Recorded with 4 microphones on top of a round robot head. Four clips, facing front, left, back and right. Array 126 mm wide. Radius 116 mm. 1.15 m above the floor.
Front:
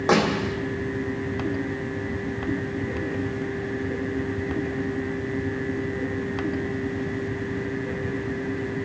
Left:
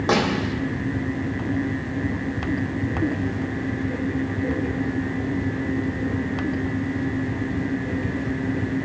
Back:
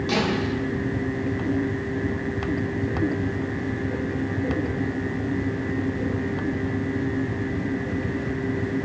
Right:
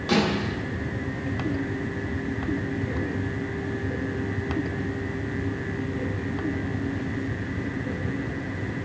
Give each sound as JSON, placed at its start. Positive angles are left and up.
{"t": 0.1, "sound": "a snare drum", "azimuth_deg": 35, "distance_m": 2.5}